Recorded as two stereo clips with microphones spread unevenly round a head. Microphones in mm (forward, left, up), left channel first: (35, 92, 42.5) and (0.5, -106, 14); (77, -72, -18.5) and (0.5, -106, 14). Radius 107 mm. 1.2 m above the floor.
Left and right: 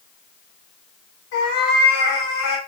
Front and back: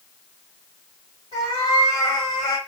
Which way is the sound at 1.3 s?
80° left.